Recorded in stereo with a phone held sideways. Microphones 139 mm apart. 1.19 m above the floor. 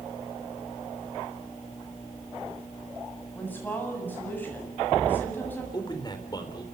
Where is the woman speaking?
15° left (ahead or behind), 7.5 m.